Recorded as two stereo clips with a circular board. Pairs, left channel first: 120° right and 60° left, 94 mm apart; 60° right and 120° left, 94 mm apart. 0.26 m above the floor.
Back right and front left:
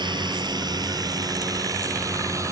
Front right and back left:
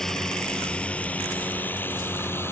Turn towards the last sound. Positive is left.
turn(degrees=5)